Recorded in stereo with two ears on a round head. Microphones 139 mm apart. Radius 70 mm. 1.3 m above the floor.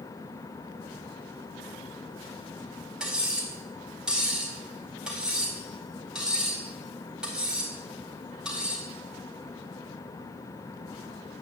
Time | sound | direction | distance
3.0 | cutlery clinking | 5° right (ahead or behind) | 4 m